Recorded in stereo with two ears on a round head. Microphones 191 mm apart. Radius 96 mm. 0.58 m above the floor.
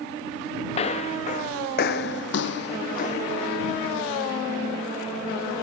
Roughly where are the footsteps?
Left.